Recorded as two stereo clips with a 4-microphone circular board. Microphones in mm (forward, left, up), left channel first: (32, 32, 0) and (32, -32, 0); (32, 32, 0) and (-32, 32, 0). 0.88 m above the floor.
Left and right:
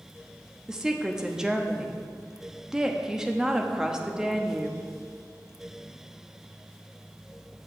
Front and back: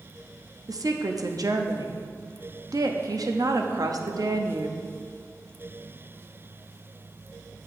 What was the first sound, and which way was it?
A woman speaking, 170° right.